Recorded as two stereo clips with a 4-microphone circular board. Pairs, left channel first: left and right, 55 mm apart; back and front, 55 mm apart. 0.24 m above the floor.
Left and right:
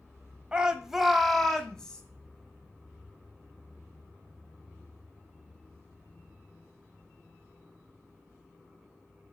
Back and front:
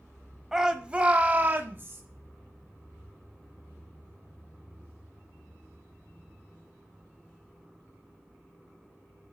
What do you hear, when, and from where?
0.5 s a shout: 70° right, 1.0 m; by 2.0 s 25° left, 1.4 m